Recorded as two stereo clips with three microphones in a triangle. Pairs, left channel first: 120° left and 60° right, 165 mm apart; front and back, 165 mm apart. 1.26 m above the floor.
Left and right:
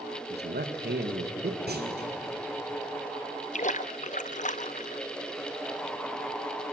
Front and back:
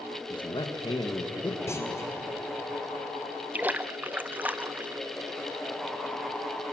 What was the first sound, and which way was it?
A man speaking, 60° right.